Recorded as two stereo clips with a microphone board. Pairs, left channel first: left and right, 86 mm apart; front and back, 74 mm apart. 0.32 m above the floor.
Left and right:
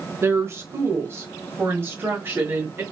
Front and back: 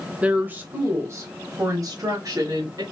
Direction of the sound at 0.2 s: 120° right.